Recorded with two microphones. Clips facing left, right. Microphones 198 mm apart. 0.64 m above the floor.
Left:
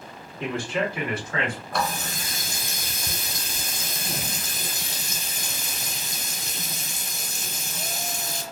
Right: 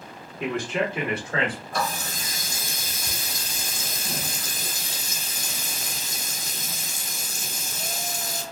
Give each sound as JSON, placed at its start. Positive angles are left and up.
{"t": 0.4, "sound": "a man speaking", "side_deg": -15, "distance_m": 1.5}
{"t": 1.7, "sound": "a running tap", "side_deg": 65, "distance_m": 1.3}